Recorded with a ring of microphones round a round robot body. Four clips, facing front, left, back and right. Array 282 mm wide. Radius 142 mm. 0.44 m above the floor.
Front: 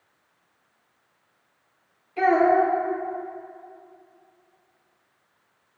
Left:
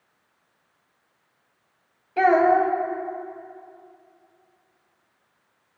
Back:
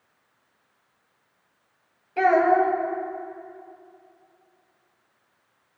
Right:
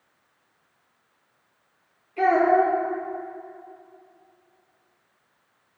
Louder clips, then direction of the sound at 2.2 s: Left 1 dB, even; 115° left.